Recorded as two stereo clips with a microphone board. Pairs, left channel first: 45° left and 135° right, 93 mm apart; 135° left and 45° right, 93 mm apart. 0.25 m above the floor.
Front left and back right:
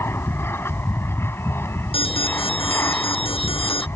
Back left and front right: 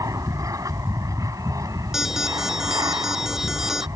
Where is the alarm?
40° left.